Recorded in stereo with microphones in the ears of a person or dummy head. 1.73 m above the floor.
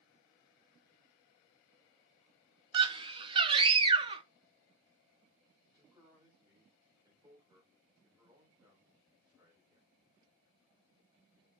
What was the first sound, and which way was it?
A scream, 30° right (ahead or behind).